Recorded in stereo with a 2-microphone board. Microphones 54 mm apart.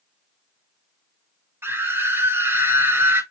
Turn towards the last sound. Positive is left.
turn(degrees=-50)  # may be behind; listen again after turning